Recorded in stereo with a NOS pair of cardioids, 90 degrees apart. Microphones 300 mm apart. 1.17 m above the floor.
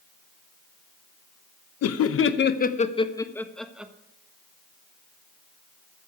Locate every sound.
1.8 s laughter: 60° left, 1.0 m; by 3.9 s 5° right, 1.4 m